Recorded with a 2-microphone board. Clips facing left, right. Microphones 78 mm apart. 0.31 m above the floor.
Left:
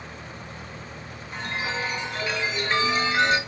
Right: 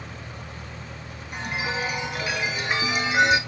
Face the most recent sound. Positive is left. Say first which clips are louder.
# right 1 dB
turn(degrees=-15)  # may be behind; listen again after turning